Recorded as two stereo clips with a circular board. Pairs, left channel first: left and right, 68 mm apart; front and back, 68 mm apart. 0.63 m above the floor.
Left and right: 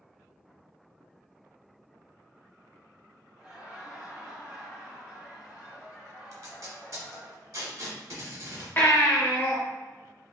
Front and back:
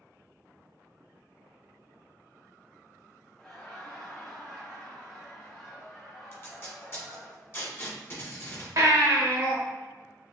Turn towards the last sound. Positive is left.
turn(degrees=145)